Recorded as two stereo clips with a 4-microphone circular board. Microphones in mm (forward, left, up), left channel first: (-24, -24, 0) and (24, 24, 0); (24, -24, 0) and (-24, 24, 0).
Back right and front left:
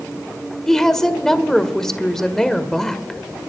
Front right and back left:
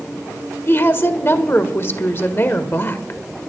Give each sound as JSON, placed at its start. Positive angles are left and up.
{"t": 0.7, "sound": "a woman speaking", "azimuth_deg": -55, "distance_m": 1.6}